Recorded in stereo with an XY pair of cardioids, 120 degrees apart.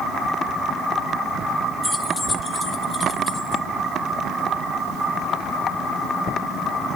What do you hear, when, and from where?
1.8 s keys jangling: 10° left, 0.8 m; by 3.6 s 45° left, 1.9 m